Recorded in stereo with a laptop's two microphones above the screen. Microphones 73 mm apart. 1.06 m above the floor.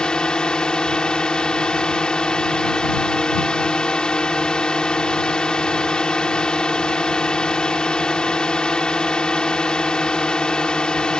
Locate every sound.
0.0 s a drone: 10° left (ahead or behind)